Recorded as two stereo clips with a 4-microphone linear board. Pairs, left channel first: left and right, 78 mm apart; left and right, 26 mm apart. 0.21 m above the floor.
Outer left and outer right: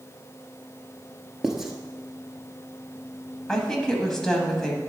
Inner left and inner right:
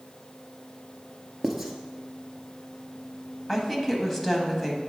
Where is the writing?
5° right (ahead or behind), 0.9 m.